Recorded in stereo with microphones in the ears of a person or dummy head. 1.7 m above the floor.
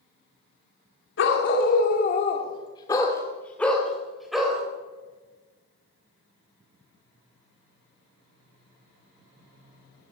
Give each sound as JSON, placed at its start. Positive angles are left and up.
{"t": 1.2, "sound": "a dog barking", "side_deg": 65, "distance_m": 2.5}